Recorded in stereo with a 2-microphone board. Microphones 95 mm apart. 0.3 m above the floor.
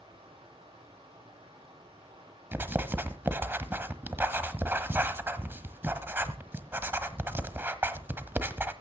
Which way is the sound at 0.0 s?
75° right (ahead or behind).